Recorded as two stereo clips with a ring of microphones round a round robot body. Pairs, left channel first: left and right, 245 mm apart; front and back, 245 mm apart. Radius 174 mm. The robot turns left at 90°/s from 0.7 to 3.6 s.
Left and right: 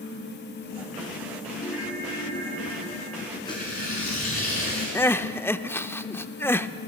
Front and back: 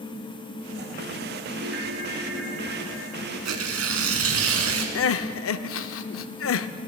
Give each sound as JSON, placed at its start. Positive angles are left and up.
{"t": 1.6, "sound": "a ringtone", "azimuth_deg": 160, "distance_m": 4.5}
{"t": 3.5, "sound": "tearing paper", "azimuth_deg": 170, "distance_m": 2.0}
{"t": 5.0, "sound": "crying", "azimuth_deg": 10, "distance_m": 0.5}